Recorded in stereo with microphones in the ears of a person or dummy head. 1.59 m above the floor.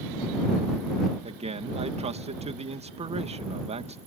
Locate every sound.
1.2 s a man speaking: 30° right (ahead or behind)